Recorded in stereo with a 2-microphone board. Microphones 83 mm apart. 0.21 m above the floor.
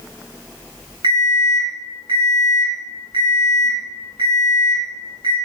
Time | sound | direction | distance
1.0 | an alarm clock | 65° right (ahead or behind) | 0.8 m